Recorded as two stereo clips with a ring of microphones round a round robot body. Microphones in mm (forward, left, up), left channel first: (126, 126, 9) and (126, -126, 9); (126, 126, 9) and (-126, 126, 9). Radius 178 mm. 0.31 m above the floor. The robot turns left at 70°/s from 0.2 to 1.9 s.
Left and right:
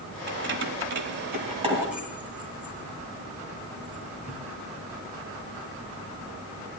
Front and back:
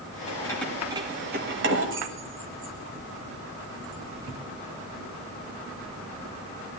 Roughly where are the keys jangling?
Ahead right.